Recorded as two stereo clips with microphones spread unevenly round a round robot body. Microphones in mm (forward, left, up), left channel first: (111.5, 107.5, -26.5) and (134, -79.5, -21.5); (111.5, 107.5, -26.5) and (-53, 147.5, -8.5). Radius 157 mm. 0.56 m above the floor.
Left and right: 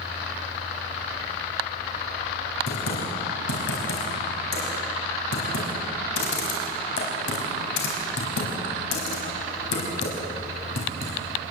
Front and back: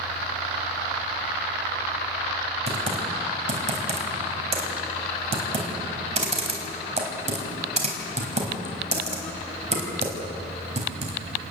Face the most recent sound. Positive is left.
turn(degrees=120)